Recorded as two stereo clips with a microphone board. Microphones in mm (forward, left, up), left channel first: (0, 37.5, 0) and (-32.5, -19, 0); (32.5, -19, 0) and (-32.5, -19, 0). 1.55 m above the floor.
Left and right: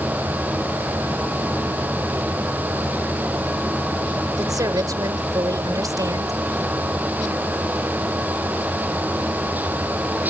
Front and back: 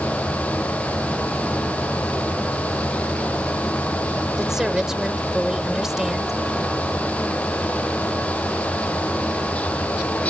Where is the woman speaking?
95° right.